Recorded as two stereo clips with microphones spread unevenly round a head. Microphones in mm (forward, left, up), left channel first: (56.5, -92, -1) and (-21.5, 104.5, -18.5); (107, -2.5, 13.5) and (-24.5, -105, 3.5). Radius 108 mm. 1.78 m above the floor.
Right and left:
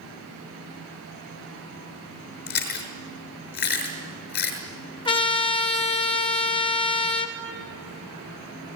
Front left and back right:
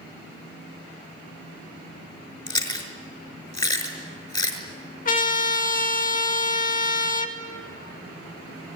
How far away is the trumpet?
About 2.5 m.